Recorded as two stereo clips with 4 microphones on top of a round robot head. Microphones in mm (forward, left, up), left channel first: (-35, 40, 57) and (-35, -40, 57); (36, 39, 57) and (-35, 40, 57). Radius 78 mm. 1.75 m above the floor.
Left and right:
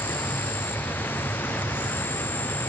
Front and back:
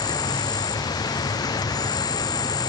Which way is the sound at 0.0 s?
20° left.